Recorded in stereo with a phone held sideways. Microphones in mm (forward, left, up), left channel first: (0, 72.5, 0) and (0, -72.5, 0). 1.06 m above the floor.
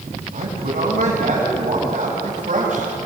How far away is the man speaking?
About 7 m.